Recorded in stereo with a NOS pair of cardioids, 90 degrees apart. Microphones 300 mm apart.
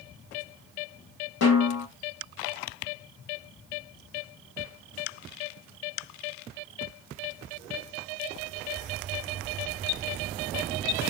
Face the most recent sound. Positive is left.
turn(degrees=50)